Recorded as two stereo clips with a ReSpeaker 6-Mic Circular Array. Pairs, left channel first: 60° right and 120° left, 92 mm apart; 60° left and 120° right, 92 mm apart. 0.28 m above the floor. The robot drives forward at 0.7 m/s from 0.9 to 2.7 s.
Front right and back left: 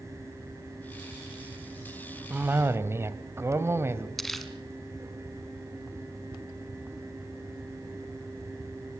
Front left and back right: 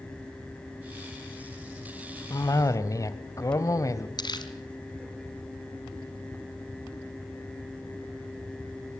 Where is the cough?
65° left, 1.6 m; by 4.1 s 80° left, 1.5 m.